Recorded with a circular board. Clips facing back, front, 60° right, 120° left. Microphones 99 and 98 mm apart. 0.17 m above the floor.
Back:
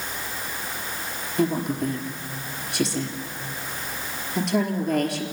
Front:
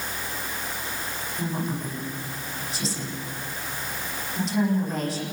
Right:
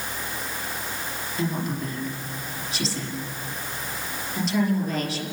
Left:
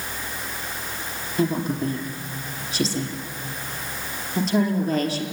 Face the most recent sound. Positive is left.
turn(degrees=165)